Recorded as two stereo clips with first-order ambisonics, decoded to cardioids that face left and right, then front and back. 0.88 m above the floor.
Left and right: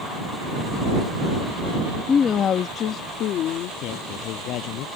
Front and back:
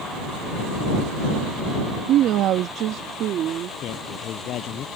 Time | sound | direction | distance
2.1 | a woman speaking | 150° left | ?
3.8 | a man speaking | 50° left | ?